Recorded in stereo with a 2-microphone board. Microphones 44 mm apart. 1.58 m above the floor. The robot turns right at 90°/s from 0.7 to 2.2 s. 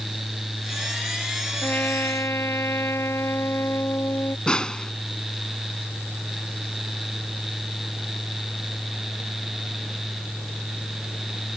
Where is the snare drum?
20° left (ahead or behind).